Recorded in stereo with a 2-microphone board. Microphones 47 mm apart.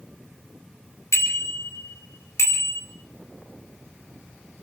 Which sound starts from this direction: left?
A bicycle bell, at 1.1 s.